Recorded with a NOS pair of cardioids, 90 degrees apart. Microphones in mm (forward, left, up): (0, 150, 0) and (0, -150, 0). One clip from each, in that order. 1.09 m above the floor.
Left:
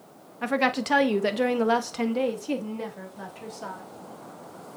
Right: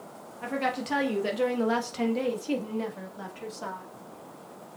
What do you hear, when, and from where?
0.4 s a woman speaking: 60° left, 1.1 m; by 3.9 s 5° right, 2.5 m